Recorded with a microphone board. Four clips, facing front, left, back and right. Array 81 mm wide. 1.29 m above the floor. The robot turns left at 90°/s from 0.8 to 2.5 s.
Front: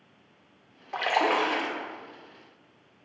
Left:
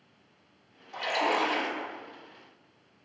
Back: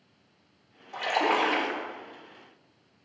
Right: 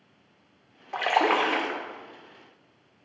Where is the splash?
55° right, 1.5 m; by 1.8 s 140° right, 1.5 m.